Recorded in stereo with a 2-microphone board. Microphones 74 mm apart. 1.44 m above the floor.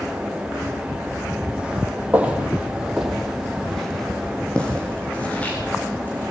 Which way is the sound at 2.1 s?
20° right (ahead or behind).